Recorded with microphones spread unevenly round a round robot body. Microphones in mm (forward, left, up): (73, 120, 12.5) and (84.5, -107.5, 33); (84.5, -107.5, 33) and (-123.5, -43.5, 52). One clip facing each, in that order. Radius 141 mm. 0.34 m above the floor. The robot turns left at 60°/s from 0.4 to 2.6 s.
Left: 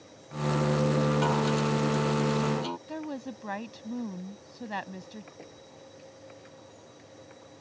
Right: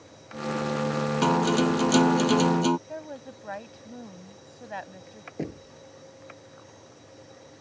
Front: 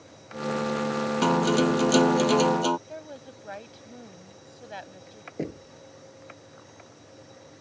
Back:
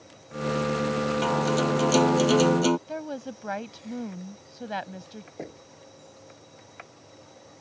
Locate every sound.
1.2 s a guitar: 50° right; by 2.8 s 135° right
2.9 s a woman speaking: 135° left
5.4 s knocking: 70° right